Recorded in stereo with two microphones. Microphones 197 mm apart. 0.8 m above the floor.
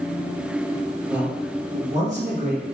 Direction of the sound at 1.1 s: 5° right (ahead or behind).